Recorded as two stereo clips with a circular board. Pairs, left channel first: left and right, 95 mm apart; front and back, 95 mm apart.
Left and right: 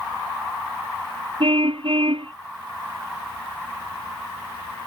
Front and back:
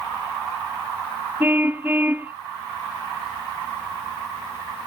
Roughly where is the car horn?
Right.